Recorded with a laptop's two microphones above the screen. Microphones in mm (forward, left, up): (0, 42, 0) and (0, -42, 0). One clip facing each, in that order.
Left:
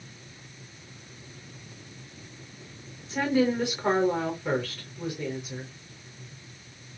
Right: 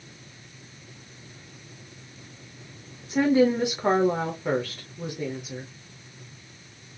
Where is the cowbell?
I don't hear a cowbell.